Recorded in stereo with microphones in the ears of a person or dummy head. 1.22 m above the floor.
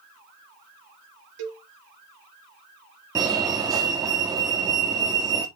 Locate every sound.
1.4 s a cowbell: 65° right (ahead or behind), 2 m
3.1 s a fire alarm: 15° right (ahead or behind), 2 m